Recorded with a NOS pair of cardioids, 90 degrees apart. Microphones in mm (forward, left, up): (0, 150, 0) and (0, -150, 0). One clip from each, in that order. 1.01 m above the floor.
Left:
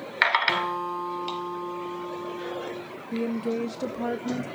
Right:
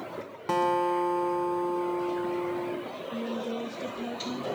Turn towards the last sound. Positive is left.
turn(degrees=45)